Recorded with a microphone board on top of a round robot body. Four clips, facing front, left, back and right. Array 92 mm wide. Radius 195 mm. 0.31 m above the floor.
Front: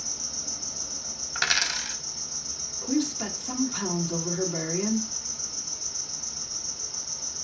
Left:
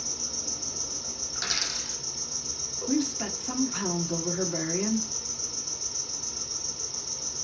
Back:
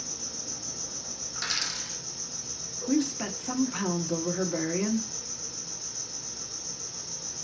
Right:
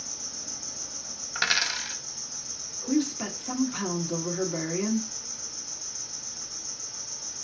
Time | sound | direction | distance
0.0 | an insect | 110° left | 1.2 m
1.4 | a dropped coin | 50° right | 0.6 m
2.9 | a woman speaking | 175° left | 1.4 m